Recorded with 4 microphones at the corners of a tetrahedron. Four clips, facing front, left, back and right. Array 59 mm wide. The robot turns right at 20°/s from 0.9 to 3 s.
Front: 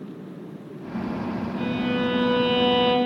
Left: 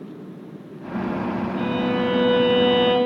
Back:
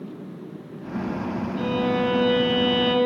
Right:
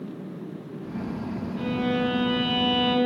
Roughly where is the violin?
Left.